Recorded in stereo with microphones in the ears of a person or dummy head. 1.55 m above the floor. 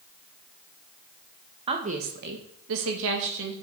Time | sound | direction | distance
1.7 | a woman speaking | 30° right (ahead or behind) | 1.4 m